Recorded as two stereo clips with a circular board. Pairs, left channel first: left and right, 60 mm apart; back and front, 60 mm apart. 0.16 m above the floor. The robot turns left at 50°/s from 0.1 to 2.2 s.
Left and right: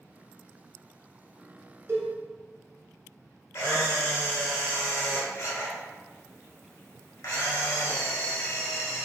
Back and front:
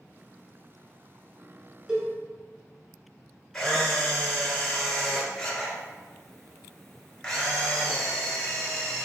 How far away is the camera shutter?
About 1.6 m.